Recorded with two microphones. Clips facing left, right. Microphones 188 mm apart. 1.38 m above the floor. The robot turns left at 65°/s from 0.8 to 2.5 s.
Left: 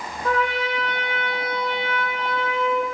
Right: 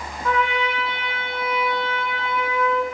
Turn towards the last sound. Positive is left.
turn(degrees=25)